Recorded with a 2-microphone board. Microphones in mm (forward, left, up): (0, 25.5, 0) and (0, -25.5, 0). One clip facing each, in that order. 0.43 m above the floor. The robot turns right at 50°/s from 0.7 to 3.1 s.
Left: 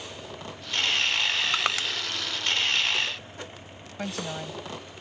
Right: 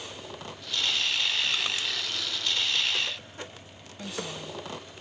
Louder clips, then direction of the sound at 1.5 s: Left 4 dB; 65° left (ahead or behind).